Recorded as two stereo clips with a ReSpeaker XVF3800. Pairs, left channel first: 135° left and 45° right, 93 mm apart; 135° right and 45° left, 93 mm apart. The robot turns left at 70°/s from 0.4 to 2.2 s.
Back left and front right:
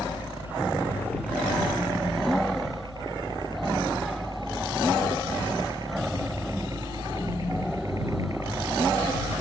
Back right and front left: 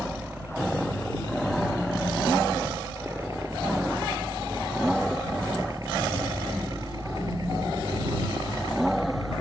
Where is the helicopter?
110° left; by 9.4 s 10° left.